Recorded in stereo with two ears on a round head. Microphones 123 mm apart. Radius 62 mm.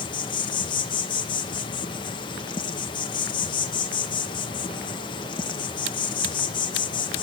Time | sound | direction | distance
0.0 | an insect | 35° left (ahead or behind) | 0.9 m